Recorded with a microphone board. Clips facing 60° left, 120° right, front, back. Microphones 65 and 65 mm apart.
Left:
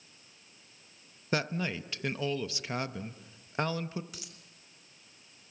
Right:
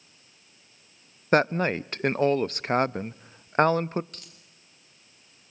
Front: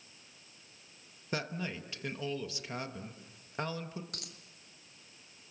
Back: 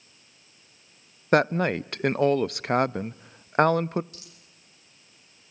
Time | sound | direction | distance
1.3 | a woman speaking | 160° right | 0.6 m
4.1 | a dropped coin | 25° right | 2.0 m